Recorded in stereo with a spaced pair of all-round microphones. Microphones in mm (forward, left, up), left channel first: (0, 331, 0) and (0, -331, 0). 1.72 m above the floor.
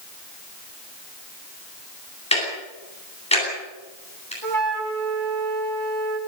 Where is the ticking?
10° left (ahead or behind), 9.5 m.